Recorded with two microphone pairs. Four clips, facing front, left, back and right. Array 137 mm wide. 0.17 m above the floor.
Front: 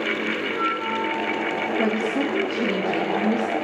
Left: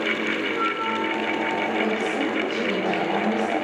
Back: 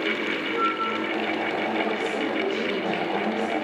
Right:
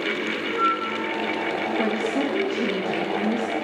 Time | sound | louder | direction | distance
0.5 | a flute | right 1 dB, even | 75° left | 4 m
1.8 | a woman speaking | even, front 3 dB | 25° right | 7.5 m